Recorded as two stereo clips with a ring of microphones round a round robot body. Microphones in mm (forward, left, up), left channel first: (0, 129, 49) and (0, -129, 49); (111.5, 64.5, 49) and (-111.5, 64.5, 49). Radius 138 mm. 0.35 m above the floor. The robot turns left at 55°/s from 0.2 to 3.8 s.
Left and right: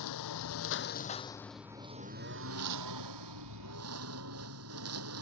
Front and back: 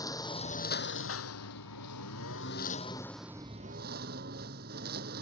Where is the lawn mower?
75° left; by 5.2 s 125° right.